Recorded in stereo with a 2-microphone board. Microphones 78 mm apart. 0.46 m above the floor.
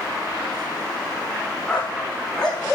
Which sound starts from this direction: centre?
A dog barking, at 1.7 s.